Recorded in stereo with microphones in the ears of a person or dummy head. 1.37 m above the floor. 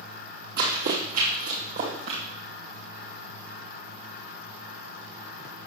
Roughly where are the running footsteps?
Right.